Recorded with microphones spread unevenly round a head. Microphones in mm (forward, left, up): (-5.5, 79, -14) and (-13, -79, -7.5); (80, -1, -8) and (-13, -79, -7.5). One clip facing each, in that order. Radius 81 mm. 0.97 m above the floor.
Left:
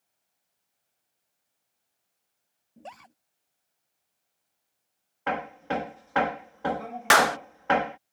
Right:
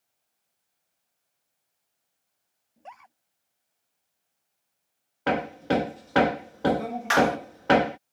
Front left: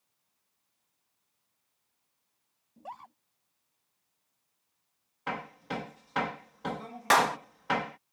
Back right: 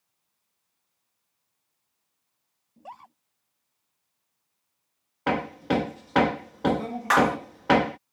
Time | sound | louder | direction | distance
2.8 | a scream | left 2 dB, even | 130° left | ?
5.3 | hammering | right 5 dB, back right 12 dB | 135° right | ?
7.1 | a clap | right 1 dB, back right 3 dB | 105° left | ?